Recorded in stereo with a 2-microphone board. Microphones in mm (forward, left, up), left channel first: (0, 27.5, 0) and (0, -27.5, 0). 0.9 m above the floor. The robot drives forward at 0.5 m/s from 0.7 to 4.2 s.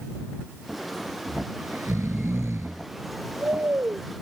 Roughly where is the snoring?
Right.